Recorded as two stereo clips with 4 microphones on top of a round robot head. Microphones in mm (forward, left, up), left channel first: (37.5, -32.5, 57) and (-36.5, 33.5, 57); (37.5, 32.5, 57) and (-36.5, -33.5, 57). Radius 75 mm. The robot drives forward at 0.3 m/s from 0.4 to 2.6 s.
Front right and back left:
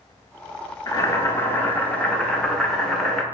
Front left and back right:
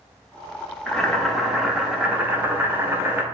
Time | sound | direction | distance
0.9 | boiling | 30° right | 0.9 m